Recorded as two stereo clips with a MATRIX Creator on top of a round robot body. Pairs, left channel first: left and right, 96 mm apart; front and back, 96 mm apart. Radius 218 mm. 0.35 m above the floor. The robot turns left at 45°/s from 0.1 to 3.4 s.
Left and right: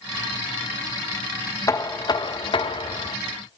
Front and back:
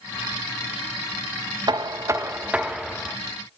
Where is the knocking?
145° left, 1.4 m; by 3.2 s 75° left, 1.4 m.